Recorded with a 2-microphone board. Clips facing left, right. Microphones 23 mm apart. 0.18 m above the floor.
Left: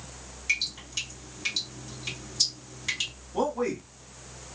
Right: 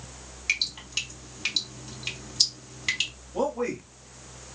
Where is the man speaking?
15° left (ahead or behind), 1.6 m.